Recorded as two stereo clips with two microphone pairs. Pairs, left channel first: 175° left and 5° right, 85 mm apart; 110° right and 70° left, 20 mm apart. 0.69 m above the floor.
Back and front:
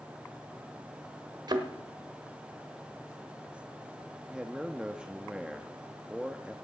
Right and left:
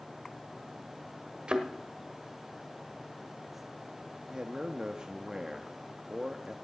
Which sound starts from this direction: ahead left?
A thud, at 1.5 s.